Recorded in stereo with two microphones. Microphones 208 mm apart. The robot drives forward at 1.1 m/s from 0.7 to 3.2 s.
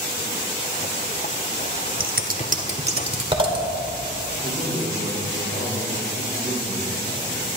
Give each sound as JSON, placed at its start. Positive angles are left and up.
{"t": 2.0, "sound": "scissors", "side_deg": -50, "distance_m": 0.9}
{"t": 4.4, "sound": "a man speaking", "side_deg": 60, "distance_m": 3.0}